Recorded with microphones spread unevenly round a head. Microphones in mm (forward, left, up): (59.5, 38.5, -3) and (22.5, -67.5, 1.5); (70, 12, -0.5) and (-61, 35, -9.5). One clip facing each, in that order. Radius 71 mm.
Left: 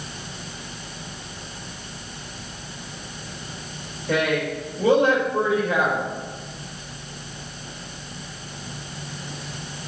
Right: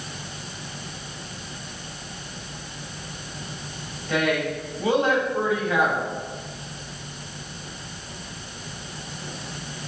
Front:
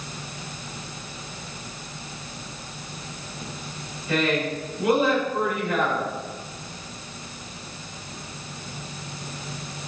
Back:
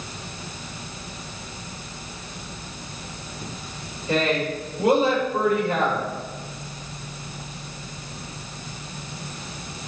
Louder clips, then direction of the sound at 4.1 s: Left 1 dB, back 1 dB; 110° left.